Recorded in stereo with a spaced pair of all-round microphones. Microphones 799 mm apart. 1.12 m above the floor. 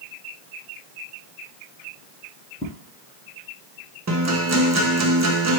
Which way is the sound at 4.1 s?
25° right (ahead or behind).